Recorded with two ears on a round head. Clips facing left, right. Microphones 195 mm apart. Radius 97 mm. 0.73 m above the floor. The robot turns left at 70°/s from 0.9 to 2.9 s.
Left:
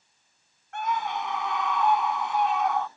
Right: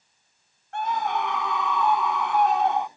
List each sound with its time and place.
0.7 s a scream: 30° right; by 2.9 s 170° right